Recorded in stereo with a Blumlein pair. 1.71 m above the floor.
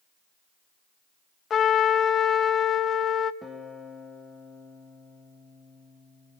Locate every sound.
1.5 s a trumpet: 25° left, 0.7 m
3.4 s a guitar: straight ahead, 2.5 m